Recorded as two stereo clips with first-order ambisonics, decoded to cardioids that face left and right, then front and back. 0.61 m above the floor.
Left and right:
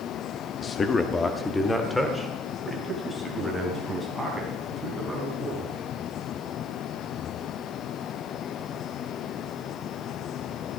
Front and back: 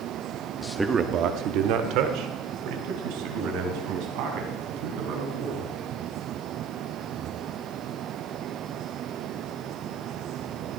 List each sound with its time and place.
0.6 s a man speaking: 60° left, 0.6 m; by 5.7 s straight behind, 5.5 m